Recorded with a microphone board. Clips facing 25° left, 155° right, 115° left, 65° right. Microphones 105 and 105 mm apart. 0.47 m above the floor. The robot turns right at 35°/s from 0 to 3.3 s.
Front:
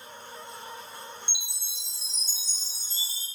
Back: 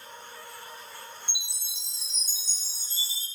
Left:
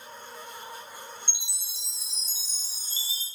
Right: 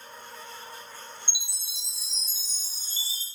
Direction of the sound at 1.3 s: 130° right.